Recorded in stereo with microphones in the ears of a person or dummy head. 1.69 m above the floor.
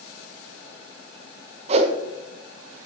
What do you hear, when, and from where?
1.7 s a whoosh: 40° right (ahead or behind), 1.3 m